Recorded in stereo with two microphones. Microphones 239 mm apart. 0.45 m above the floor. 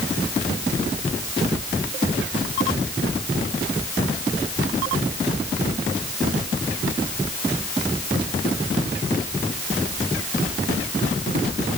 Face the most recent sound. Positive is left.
No sound to turn to.